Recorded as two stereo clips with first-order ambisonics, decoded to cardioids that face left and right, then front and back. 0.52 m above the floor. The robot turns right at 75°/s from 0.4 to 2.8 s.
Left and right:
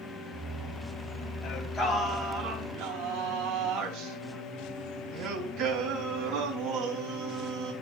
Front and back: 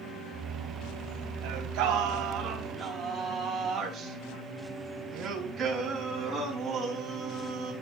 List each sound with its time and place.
1.4 s singing: 150° left, 4 m; by 7.7 s 105° right, 4 m